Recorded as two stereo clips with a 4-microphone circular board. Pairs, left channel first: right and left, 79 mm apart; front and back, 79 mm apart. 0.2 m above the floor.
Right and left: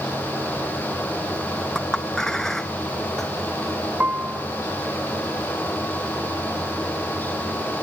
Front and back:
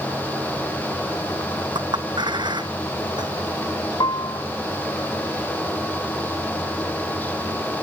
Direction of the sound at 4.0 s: 20° left.